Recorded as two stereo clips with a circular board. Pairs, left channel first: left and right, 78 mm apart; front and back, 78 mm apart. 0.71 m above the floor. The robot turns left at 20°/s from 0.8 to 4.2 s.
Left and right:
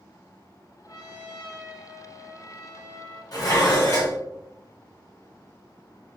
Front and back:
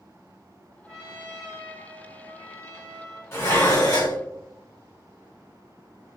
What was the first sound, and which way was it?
A trumpet, 90° left.